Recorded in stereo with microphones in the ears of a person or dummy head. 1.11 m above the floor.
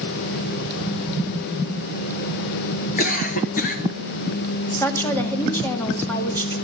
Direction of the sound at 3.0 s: 45° left (ahead or behind).